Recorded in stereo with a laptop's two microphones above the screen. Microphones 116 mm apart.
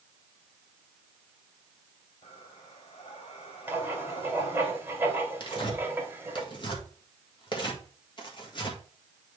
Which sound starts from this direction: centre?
Writing, at 3.7 s.